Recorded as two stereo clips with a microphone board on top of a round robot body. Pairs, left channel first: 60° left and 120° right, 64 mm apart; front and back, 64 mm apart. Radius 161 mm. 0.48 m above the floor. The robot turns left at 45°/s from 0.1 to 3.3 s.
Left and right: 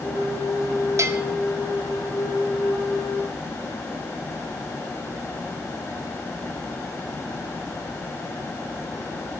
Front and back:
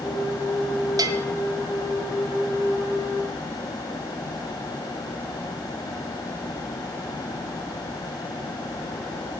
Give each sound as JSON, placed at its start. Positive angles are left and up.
{"t": 1.0, "sound": "a bell", "azimuth_deg": -160, "distance_m": 0.8}